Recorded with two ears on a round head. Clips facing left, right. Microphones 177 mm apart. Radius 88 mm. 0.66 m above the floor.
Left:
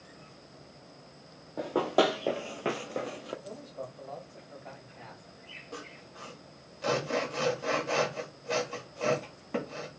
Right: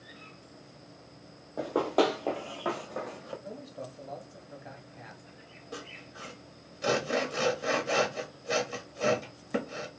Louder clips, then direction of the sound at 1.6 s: Even; 5° right (ahead or behind).